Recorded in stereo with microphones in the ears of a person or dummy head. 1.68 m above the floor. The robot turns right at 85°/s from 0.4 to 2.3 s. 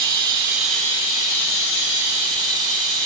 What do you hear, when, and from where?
0.0 s running water: 25° right, 1.1 m; by 3.1 s 135° left, 1.1 m